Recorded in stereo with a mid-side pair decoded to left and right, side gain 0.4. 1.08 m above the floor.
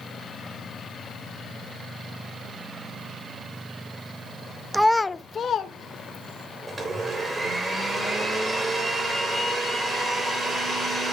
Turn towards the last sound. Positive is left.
turn(degrees=-35)